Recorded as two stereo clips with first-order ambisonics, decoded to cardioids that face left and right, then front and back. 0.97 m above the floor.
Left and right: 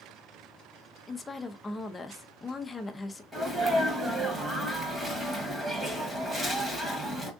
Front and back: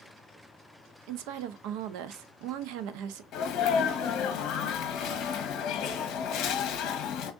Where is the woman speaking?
170° left, 0.5 m.